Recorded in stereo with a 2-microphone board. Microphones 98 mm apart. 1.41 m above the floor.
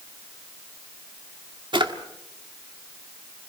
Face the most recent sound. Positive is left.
turn(degrees=-65)  # may be behind; listen again after turning